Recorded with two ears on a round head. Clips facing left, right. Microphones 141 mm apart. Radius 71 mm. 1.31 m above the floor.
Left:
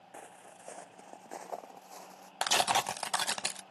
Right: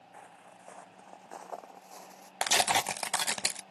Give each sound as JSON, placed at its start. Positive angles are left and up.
{"t": 0.1, "sound": "footsteps", "side_deg": 35}
{"t": 2.4, "sound": "tearing paper", "side_deg": -15}